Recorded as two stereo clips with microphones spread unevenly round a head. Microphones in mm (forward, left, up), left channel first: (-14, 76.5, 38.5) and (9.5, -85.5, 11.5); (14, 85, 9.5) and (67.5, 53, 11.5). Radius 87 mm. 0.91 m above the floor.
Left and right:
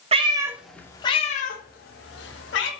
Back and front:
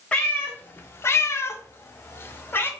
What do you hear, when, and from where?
0.1 s a cat meowing: 135° right, 0.6 m; by 2.7 s 95° left, 1.2 m